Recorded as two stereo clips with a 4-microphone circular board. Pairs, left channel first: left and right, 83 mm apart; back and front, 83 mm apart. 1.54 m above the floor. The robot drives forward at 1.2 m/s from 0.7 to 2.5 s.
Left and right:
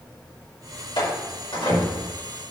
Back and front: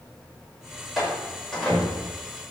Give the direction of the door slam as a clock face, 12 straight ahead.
9 o'clock.